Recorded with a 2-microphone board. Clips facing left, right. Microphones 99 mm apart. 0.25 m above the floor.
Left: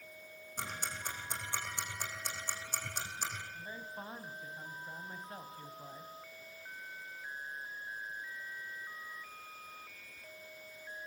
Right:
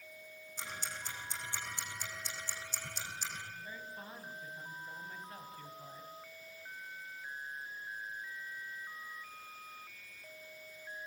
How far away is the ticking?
About 6 m.